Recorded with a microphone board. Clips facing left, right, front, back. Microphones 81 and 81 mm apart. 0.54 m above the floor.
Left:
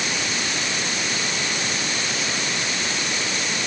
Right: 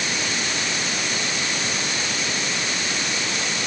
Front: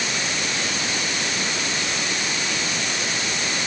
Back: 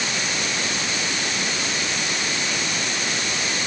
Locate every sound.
Only background noise.